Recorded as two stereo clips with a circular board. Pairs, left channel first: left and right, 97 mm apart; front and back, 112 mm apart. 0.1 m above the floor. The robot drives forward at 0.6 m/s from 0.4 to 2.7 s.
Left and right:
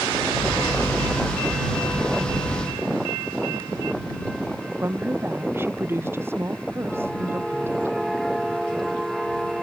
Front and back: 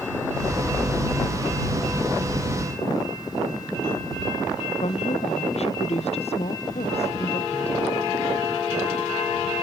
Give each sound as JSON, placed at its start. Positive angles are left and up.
{"t": 4.8, "sound": "a woman speaking", "azimuth_deg": -25}